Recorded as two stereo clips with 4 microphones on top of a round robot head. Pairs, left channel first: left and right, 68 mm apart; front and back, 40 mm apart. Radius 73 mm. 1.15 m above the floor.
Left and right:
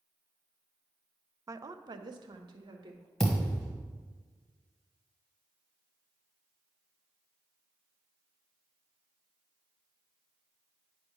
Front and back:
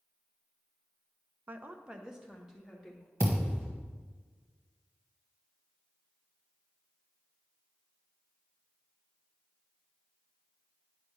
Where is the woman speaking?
135° right, 0.5 m; by 3.1 s 85° right, 1.6 m.